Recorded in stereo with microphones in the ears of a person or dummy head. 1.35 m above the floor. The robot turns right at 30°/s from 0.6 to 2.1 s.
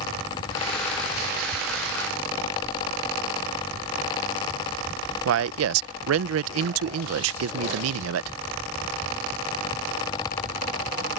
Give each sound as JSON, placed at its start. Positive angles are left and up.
{"t": 5.2, "sound": "a man speaking", "side_deg": -90}